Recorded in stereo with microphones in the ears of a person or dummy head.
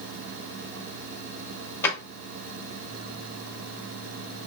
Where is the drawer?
20° left (ahead or behind), 0.8 m.